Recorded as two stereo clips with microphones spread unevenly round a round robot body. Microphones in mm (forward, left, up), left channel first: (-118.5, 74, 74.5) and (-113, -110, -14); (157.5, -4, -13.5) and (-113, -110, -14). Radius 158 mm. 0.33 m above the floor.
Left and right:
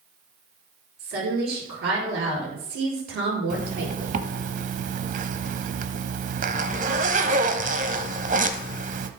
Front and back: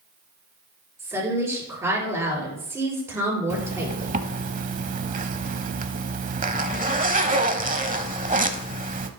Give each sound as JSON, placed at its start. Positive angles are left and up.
{"t": 1.0, "sound": "a woman speaking", "azimuth_deg": -80, "distance_m": 6.0}
{"t": 3.5, "sound": "a zipper", "azimuth_deg": -100, "distance_m": 0.8}